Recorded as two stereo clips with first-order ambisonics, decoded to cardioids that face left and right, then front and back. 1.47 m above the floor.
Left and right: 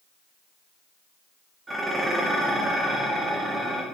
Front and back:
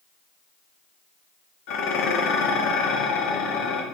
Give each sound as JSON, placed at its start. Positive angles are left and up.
{"t": 1.7, "sound": "dishes clattering", "azimuth_deg": -15, "distance_m": 1.5}